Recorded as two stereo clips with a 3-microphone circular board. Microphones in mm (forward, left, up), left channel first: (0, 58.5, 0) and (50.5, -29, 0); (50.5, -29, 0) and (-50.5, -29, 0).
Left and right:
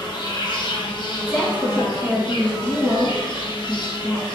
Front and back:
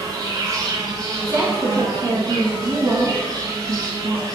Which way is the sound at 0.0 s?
135° left.